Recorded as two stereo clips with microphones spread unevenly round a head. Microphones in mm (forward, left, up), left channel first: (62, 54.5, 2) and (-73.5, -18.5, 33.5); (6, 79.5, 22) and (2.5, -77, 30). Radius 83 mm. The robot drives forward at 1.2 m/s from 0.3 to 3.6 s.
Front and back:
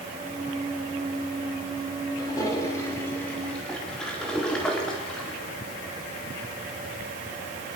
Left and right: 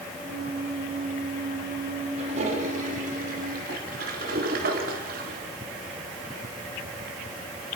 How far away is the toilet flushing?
About 5 m.